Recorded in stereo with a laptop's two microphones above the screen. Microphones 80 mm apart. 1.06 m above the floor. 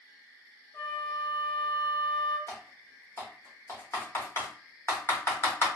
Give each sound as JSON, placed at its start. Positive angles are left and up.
{"t": 0.7, "sound": "a flute", "side_deg": 35, "distance_m": 1.4}
{"t": 2.5, "sound": "typing on a keyboard", "side_deg": 35, "distance_m": 0.8}